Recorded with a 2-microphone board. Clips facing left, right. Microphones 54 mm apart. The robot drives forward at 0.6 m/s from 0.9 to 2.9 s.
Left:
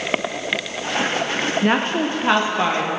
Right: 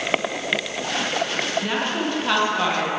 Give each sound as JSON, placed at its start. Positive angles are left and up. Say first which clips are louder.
{"t": 1.6, "sound": "a woman speaking", "louder": "left 5 dB", "side_deg": 40, "distance_m": 0.5}